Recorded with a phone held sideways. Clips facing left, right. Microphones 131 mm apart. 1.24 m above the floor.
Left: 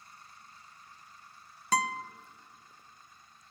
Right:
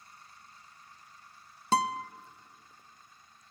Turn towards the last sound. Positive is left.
turn(degrees=-30)  # may be behind; listen again after turning